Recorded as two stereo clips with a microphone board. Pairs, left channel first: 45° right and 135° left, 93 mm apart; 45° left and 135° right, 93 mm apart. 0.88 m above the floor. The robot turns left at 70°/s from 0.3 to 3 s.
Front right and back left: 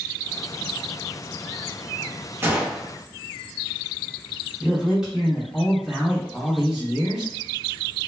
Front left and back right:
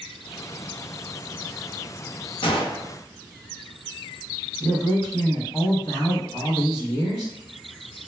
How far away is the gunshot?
About 0.6 m.